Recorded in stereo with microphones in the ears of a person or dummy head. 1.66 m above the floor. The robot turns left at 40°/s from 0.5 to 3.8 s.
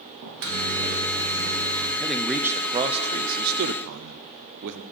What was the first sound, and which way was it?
A microwave, 70° right.